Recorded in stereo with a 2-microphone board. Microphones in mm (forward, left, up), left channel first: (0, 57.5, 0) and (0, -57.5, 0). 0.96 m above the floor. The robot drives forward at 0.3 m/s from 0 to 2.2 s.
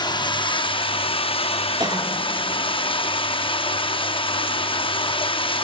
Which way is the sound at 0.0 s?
40° left (ahead or behind).